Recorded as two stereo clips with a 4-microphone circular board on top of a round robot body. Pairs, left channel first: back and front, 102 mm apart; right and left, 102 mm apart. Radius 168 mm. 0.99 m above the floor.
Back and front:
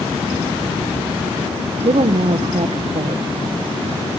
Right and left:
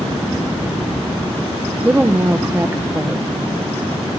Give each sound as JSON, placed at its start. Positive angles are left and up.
{"t": 1.8, "sound": "a woman speaking", "azimuth_deg": 20, "distance_m": 0.6}